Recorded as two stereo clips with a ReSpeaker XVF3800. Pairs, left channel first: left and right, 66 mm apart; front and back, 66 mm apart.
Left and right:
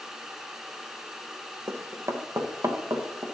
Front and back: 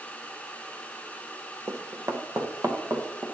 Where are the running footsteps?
135° right, 1.4 m; by 3.2 s 125° right, 2.5 m.